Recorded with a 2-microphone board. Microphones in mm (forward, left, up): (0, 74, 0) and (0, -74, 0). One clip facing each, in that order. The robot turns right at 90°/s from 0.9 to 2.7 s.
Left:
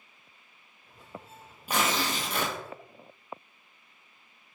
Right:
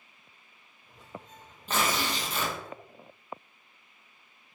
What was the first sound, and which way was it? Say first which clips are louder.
Tearing paper: left 1 dB; 10° left.